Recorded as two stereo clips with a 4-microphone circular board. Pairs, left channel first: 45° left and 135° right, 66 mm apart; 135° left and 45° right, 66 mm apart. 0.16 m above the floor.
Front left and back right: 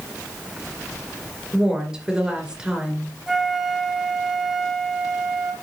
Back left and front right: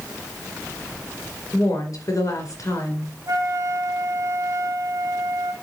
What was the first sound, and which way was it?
A woman speaking, 150° left.